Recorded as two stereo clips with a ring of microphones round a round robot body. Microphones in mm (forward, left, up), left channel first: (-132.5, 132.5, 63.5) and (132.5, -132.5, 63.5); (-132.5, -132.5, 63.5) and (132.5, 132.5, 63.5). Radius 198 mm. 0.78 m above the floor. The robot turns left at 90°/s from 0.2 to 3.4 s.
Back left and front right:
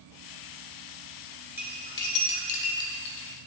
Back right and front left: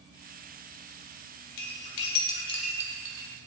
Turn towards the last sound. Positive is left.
turn(degrees=65)